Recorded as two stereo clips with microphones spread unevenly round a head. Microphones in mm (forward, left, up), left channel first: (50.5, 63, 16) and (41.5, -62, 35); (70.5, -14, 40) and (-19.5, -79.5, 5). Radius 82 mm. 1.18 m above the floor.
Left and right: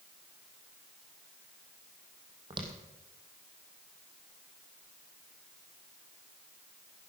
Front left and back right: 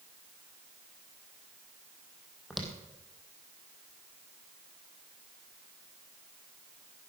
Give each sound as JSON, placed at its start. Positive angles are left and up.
{"t": 2.5, "sound": "footsteps", "azimuth_deg": -45, "distance_m": 3.0}